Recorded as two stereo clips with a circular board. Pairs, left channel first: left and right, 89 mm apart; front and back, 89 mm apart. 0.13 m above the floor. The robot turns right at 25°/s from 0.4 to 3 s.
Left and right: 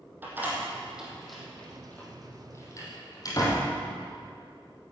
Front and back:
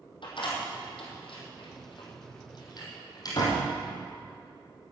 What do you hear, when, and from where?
0.2 s a door slam: 20° right, 3 m; by 3.7 s 45° left, 3 m